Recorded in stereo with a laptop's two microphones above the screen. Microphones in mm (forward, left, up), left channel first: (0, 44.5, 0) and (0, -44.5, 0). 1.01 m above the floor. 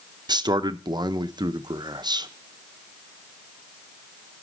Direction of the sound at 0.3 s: 50° right (ahead or behind).